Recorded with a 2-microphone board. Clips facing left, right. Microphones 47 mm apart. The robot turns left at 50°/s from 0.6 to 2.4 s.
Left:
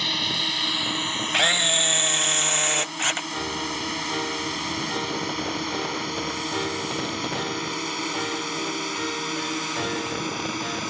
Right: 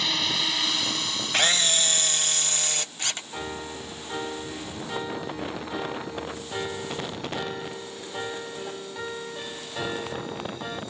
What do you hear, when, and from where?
0.0 s a drone: centre (ahead or behind); by 10.9 s 75° left (ahead or behind)
1.3 s a camera shutter: 165° left; by 3.2 s 115° left
3.3 s a piano: centre (ahead or behind)